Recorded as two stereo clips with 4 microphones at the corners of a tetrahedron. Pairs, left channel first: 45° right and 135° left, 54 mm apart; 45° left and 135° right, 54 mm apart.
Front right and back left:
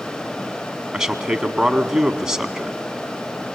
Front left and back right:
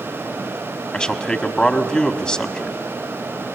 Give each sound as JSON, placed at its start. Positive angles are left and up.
{"t": 0.9, "sound": "a man speaking", "azimuth_deg": 80, "distance_m": 1.1}